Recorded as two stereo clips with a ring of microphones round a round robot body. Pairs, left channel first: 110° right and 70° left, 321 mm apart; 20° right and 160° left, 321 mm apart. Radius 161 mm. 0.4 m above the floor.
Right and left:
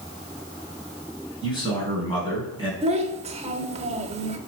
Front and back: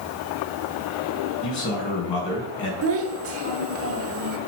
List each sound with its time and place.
1.4 s a man speaking: 35° right, 5 m
2.8 s a child speaking: 130° left, 1.0 m